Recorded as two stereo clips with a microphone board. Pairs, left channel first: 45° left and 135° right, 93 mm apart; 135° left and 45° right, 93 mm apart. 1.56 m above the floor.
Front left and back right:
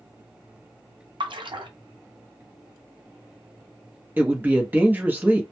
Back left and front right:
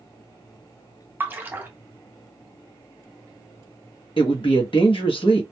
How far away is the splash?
About 0.6 m.